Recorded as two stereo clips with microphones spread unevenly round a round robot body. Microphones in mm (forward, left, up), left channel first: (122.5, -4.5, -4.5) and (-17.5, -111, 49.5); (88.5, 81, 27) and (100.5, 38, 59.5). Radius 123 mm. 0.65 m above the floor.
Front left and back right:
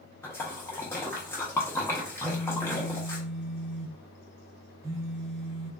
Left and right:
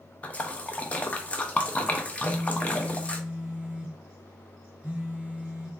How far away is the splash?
About 0.5 m.